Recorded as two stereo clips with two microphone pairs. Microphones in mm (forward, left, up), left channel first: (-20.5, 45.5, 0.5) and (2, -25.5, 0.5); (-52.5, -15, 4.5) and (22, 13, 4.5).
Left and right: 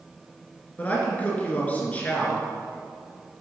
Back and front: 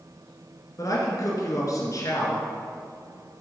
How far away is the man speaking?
About 3 m.